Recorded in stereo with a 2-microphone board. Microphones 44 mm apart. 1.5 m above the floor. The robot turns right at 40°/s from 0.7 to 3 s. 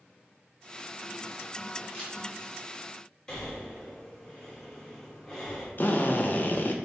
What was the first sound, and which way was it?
A camera shutter, 30° left (ahead or behind).